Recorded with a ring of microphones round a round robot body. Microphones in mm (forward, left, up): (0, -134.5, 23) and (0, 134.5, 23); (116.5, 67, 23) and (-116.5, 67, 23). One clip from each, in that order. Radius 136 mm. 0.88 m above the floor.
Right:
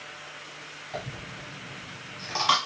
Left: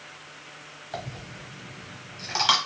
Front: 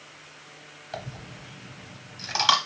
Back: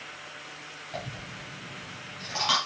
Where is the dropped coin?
20° left, 1.0 m.